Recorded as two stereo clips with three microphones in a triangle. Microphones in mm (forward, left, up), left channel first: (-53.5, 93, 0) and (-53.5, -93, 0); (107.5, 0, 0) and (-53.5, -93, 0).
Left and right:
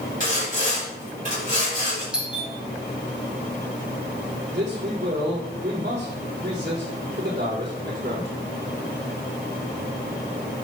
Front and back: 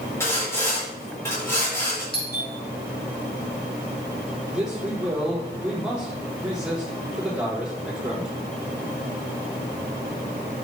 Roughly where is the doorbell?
Ahead.